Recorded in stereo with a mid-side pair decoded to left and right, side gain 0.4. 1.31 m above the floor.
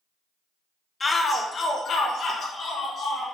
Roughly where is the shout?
Ahead left.